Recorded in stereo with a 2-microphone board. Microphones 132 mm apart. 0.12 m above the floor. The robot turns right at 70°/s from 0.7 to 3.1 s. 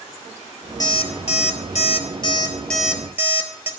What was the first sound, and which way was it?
An alarm clock, 30° left (ahead or behind).